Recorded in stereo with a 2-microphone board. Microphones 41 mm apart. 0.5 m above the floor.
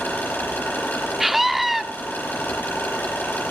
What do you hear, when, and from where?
0.0 s an engine running: 65° left (ahead or behind), 9 m
1.2 s a scream: 5° right (ahead or behind), 0.9 m